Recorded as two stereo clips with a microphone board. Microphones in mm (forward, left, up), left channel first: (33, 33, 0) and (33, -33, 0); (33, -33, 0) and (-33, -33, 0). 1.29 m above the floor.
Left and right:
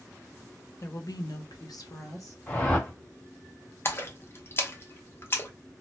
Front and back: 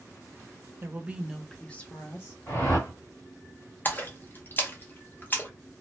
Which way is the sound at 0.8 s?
130° left.